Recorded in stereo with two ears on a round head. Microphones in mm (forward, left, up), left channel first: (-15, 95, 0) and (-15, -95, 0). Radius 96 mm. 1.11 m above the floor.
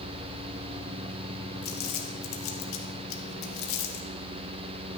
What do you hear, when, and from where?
1.6 s crumpling: 65° left (ahead or behind), 1.3 m